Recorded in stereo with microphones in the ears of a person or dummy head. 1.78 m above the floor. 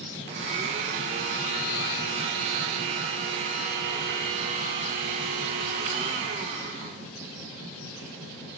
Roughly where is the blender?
Right.